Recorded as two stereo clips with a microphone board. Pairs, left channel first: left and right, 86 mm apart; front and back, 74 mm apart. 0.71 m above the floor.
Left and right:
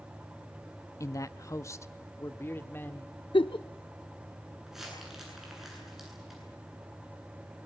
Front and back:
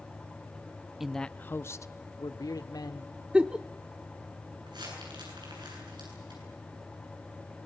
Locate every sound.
1.0 s a man speaking: 100° left, 0.6 m; by 3.1 s 25° left, 1.7 m
3.3 s a giggle: 105° left, 0.7 m
4.7 s crumpling: 175° right, 9.5 m